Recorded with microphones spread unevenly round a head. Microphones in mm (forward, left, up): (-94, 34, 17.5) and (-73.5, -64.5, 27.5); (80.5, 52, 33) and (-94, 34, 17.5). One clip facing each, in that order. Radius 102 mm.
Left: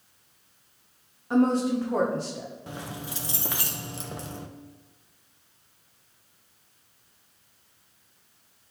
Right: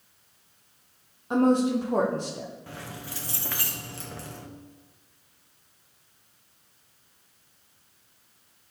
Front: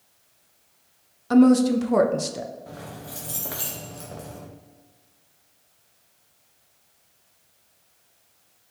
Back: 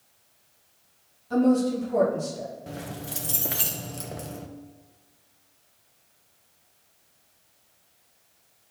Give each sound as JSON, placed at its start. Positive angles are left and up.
{"t": 1.3, "sound": "a woman speaking", "azimuth_deg": 0, "distance_m": 0.7}
{"t": 2.7, "sound": "keys jangling", "azimuth_deg": 155, "distance_m": 0.6}